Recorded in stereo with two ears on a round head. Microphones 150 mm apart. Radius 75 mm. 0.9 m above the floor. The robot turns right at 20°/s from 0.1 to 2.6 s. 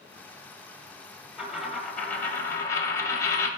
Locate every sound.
1.4 s a dropped coin: 5° right (ahead or behind), 1.4 m; by 3.5 s 20° left (ahead or behind), 1.4 m